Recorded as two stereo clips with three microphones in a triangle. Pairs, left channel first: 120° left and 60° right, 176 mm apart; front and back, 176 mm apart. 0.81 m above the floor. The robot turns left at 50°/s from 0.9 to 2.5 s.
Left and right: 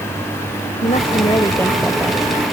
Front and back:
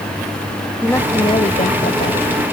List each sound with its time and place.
0.8 s a woman speaking: 75° left; by 2.4 s straight ahead